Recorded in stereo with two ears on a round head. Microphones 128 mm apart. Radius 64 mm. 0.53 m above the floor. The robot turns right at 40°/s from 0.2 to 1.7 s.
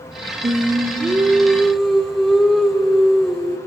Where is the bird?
No bird in this recording.